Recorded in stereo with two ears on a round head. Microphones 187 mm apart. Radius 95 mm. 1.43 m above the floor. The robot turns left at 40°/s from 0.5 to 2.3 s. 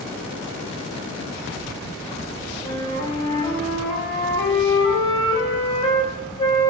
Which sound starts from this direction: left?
A flute, at 2.6 s.